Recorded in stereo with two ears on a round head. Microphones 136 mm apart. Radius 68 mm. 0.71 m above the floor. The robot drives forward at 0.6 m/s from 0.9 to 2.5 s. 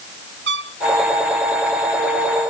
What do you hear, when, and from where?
0.5 s a trumpet: 90° right